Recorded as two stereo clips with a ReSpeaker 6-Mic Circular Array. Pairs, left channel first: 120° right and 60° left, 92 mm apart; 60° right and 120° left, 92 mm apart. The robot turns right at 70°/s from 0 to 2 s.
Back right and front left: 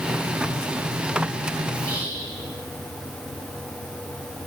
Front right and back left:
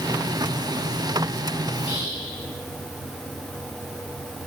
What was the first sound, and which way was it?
Whispering, 55° left.